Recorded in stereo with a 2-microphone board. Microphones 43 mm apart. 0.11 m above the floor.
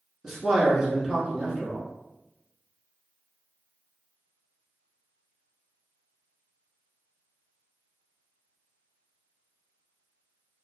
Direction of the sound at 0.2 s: 10° right (ahead or behind).